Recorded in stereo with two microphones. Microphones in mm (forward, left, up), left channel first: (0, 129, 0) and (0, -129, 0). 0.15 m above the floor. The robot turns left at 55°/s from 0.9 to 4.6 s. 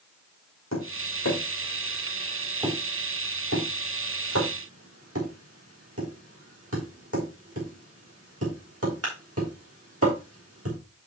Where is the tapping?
85° left, 3.5 m; by 10.8 s 65° right (ahead or behind), 3.5 m.